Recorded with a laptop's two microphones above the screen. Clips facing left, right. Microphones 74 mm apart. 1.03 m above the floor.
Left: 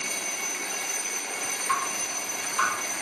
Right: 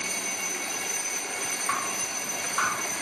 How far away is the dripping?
About 1.6 m.